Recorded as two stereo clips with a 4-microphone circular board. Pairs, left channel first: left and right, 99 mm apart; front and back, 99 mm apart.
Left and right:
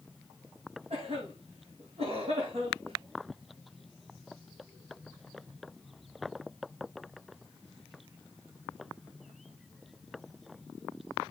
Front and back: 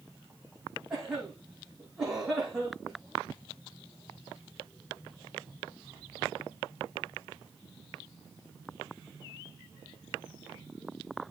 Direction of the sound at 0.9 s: 95° right.